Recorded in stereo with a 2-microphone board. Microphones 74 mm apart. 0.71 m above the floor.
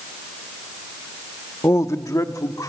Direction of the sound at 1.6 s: 40° left (ahead or behind).